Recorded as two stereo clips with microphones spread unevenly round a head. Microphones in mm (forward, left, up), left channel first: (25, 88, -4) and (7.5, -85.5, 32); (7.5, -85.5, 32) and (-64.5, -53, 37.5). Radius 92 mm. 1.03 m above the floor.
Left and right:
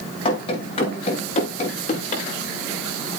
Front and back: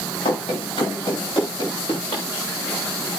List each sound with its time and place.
0.2 s running footsteps: 25° left, 8 m; by 2.3 s 35° left, 8.5 m